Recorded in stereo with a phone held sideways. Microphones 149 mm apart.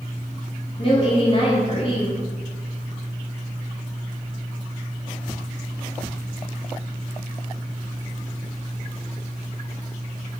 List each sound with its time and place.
0.8 s a woman speaking: 35° left (ahead or behind), 1.0 m